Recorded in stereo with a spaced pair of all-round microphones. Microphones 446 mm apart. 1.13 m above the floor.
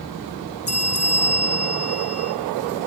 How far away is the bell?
About 2.0 m.